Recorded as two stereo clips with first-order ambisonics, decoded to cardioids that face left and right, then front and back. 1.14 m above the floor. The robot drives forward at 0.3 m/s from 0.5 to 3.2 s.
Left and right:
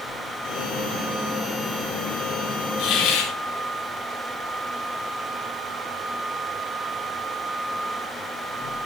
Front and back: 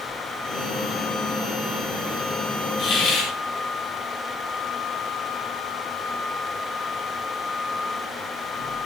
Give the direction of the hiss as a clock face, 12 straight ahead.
10 o'clock.